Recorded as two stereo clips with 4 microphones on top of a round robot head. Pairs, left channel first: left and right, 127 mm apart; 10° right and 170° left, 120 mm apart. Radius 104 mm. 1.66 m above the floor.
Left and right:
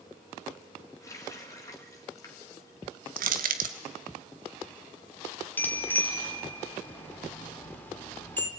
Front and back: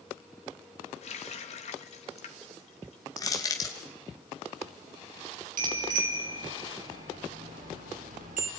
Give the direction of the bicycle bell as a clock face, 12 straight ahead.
6 o'clock.